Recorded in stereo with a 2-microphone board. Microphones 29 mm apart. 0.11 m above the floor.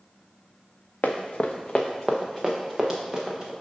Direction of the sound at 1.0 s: 70° left (ahead or behind).